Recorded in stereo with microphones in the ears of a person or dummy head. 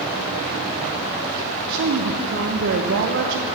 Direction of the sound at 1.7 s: 70° right (ahead or behind).